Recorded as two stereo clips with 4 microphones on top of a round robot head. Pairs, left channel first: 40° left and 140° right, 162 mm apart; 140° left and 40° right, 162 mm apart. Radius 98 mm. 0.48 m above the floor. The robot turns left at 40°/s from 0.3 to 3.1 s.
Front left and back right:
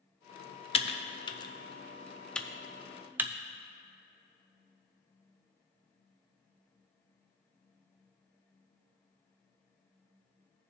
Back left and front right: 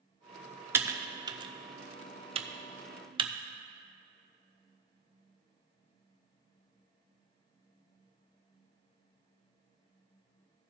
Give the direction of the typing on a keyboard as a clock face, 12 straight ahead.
11 o'clock.